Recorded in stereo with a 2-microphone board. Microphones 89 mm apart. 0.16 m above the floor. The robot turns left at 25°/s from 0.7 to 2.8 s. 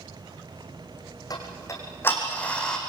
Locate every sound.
1.3 s ticking: 45° left (ahead or behind), 4 m; by 2.8 s 5° left (ahead or behind), 4 m